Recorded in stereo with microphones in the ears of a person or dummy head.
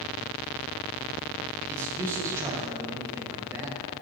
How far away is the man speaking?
About 1.6 m.